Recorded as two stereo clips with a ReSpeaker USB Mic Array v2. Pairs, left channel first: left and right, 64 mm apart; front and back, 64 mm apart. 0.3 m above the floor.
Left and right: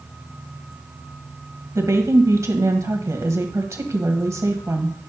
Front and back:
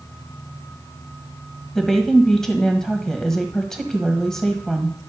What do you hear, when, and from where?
1.8 s a woman speaking: 80° right, 1.4 m